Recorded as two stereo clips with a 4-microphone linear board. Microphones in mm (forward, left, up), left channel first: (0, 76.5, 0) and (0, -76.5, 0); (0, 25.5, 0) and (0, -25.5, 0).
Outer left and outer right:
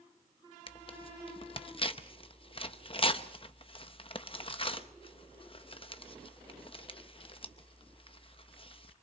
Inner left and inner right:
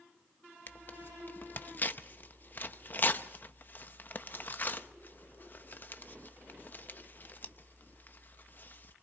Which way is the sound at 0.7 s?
35° left (ahead or behind).